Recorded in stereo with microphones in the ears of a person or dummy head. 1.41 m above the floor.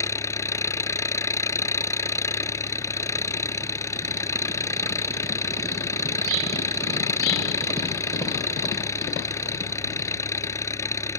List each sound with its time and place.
0.0 s an engine running: 20° left (ahead or behind)